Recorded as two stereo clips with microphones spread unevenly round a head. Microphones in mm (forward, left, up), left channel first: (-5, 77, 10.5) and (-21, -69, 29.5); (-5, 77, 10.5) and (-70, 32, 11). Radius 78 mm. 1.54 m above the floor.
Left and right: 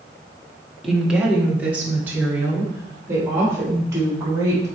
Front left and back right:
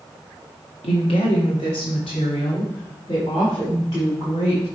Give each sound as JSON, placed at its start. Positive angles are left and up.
{"t": 0.8, "sound": "a woman speaking", "azimuth_deg": -5, "distance_m": 1.6}